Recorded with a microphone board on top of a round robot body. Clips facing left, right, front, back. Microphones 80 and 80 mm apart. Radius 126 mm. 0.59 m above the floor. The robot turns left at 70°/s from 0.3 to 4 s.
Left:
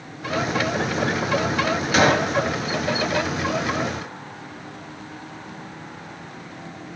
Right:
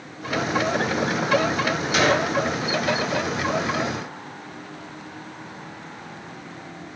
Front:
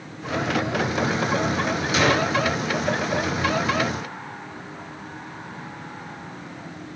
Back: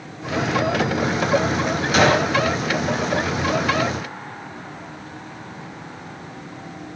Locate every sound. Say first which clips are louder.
1.9 s a gunshot: left 2 dB, back 4 dB; 140° left, 2.5 m; by 2.3 s 110° left, 2.5 m